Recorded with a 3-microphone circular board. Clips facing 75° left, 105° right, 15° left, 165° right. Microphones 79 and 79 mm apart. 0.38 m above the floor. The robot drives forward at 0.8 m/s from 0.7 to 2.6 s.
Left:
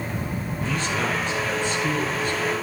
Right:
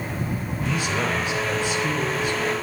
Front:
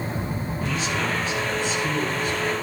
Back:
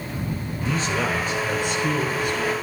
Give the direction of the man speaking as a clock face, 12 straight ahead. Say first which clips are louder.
Right 1 dB, back 3 dB; 6 o'clock.